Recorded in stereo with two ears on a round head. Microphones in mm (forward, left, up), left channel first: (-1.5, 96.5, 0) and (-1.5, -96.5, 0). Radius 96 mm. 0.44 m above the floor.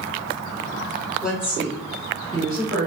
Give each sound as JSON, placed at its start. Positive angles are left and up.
{"t": 1.2, "sound": "a woman speaking", "side_deg": 0, "distance_m": 1.0}